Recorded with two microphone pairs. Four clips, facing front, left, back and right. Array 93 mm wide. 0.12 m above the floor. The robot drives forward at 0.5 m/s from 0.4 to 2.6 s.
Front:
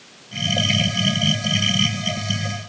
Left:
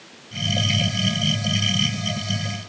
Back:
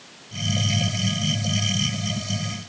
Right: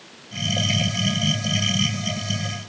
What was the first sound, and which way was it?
Only background noise.